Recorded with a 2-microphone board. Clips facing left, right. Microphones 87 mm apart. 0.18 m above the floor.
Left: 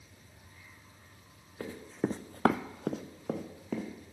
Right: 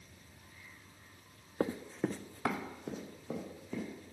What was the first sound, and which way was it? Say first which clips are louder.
Running footsteps: even; 35° right (ahead or behind).